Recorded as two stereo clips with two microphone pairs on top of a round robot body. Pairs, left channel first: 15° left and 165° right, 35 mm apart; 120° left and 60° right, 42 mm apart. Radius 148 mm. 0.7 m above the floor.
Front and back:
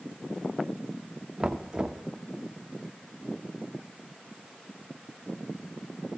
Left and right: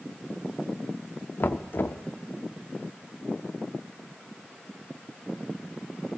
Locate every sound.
1.4 s knocking: 110° left, 0.5 m